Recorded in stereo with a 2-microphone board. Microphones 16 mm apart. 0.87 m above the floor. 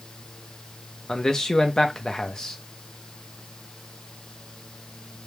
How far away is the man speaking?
About 0.7 m.